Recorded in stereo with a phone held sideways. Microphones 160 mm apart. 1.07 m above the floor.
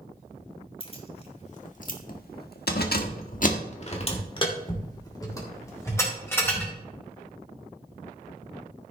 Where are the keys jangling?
35° left (ahead or behind), 2.5 m; by 6.7 s 15° left (ahead or behind), 4.5 m.